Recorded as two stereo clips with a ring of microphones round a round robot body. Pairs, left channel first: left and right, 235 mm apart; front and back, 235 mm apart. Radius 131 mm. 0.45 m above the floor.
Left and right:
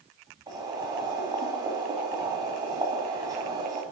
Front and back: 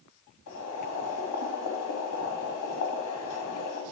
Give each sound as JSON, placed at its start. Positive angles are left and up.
{"t": 0.5, "sound": "boiling", "azimuth_deg": -15, "distance_m": 2.0}